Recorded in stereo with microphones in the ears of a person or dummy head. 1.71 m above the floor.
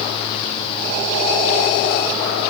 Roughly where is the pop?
No pop in this recording.